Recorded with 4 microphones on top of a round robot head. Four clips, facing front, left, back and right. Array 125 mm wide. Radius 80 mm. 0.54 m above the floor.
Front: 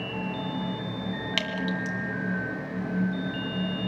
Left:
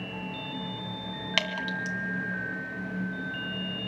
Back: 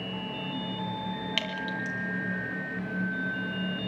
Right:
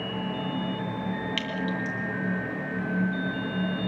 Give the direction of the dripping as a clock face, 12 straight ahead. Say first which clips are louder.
Right 2 dB, front 3 dB; 9 o'clock.